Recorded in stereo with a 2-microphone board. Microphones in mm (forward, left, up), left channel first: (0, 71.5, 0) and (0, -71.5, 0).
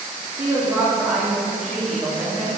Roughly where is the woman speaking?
Right.